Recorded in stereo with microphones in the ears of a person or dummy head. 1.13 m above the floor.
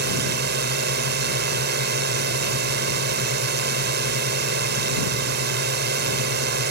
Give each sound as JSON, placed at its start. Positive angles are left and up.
{"t": 0.0, "sound": "a drone", "side_deg": -55}